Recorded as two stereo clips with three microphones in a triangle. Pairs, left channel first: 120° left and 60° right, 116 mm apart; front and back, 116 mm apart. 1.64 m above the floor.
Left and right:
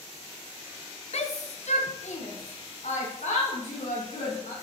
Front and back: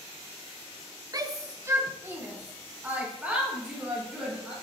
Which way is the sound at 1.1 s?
130° left.